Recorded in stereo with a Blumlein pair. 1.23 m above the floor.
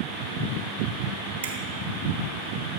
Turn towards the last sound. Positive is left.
turn(degrees=-65)